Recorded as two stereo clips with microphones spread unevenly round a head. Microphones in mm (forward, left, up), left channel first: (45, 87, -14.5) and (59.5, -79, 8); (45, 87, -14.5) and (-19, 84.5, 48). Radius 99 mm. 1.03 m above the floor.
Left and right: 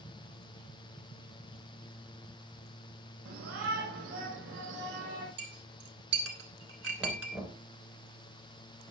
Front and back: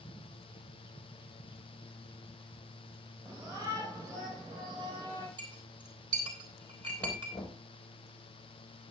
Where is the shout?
100° right, 4.5 m; by 5.3 s 130° right, 4 m.